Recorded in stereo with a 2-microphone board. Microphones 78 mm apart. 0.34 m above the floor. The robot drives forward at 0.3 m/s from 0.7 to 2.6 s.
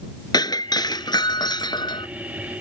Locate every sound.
0.3 s breaking glass: 60° left (ahead or behind); by 2.1 s 70° left (ahead or behind)